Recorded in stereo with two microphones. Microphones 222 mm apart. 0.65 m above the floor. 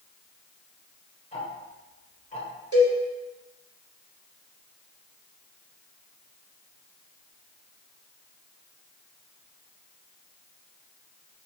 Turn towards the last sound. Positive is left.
turn(degrees=-85)